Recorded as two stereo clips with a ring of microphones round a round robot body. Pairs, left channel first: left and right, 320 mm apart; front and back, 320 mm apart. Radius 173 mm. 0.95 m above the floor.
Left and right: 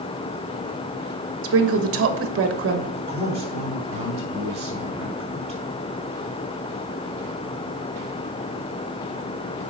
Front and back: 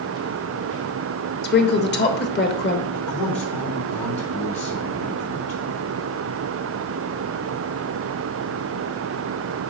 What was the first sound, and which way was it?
A woman speaking, 50° right.